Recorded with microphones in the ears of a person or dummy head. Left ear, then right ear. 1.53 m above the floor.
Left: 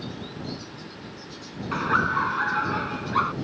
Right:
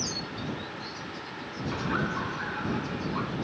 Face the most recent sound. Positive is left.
turn(degrees=50)  # may be behind; listen again after turning